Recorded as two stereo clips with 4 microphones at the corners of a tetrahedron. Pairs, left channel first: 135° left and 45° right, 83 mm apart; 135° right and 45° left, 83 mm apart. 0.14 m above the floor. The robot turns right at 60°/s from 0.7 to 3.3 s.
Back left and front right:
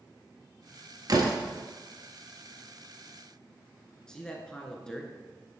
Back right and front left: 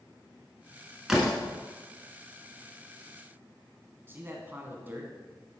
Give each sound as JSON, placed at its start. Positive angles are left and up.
{"t": 1.1, "sound": "a door slam", "azimuth_deg": -40, "distance_m": 1.4}
{"t": 4.1, "sound": "a man speaking", "azimuth_deg": 65, "distance_m": 1.1}